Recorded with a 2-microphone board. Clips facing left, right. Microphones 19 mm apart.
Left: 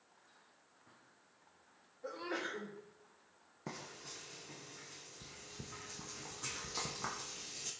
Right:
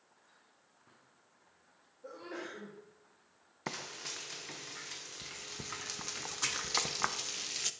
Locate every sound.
2.0 s a sneeze: 50° left (ahead or behind), 3 m
3.7 s frying: 60° right (ahead or behind), 0.5 m